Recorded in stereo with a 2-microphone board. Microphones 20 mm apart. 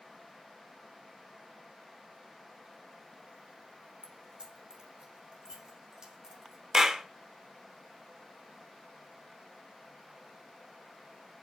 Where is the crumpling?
No crumpling in this recording.